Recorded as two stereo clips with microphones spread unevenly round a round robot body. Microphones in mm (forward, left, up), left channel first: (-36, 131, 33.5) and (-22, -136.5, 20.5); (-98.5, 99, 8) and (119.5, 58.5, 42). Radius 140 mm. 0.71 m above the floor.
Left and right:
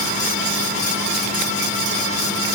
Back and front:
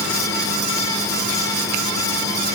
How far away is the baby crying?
No baby crying in this recording.